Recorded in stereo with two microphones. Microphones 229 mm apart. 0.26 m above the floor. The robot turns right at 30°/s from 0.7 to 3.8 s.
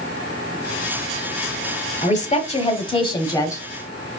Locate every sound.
2.0 s a woman speaking: 110° left, 1.0 m; by 3.7 s 155° left, 1.0 m